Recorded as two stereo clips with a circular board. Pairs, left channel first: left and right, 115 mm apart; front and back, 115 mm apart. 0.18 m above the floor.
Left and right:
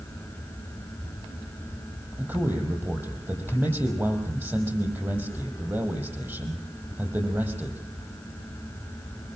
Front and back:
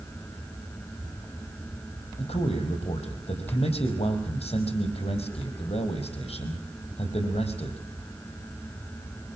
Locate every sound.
2.2 s a man speaking: 20° right, 6 m